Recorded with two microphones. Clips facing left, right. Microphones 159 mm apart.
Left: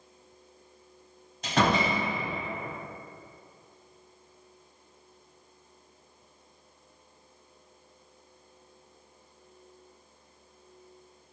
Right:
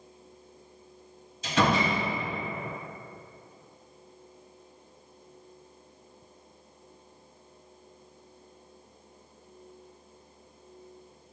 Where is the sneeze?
I don't hear a sneeze.